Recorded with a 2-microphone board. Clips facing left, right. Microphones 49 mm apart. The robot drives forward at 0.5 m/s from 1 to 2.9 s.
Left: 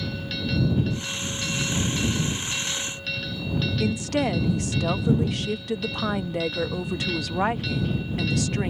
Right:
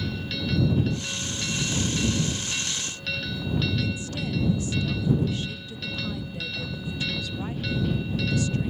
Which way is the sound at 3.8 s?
75° left (ahead or behind).